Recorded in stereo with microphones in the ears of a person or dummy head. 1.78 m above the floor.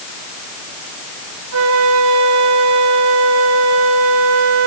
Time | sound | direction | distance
1.5 | a flute | 65° right (ahead or behind) | 1.4 m